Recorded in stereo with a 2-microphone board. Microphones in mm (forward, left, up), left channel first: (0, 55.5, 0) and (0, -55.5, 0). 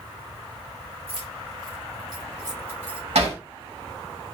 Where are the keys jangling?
55° right (ahead or behind), 2.5 m; by 3.0 s 15° right (ahead or behind), 2 m.